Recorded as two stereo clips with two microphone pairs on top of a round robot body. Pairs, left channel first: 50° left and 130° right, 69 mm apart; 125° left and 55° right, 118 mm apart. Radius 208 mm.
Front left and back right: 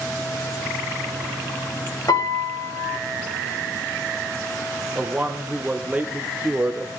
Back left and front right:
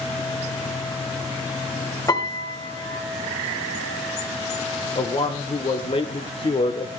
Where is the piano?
75° left, 3 m.